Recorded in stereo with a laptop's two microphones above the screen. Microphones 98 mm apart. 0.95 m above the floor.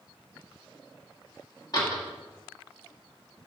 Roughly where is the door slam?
Left.